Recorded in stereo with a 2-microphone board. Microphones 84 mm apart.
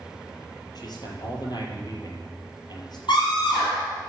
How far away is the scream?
About 5 m.